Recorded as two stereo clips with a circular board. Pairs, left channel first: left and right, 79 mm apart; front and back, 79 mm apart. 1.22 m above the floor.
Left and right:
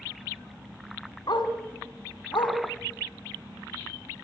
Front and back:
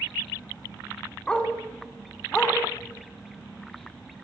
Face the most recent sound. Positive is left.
turn(degrees=75)